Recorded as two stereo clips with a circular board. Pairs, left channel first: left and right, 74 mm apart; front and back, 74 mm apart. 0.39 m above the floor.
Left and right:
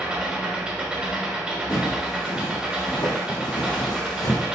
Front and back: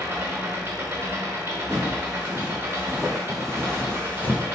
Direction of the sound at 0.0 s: 150° right.